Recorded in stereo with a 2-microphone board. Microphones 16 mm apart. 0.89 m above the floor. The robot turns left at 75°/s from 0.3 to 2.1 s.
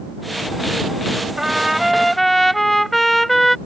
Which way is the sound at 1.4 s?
140° right.